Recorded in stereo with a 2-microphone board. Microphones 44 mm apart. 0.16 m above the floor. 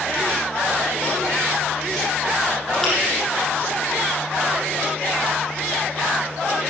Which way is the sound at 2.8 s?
10° left (ahead or behind).